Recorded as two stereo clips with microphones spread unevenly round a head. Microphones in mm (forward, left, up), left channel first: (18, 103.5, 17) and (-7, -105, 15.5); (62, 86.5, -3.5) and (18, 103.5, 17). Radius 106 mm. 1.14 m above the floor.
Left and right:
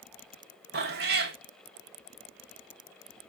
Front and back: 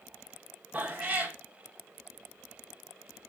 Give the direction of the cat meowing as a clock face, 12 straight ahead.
5 o'clock.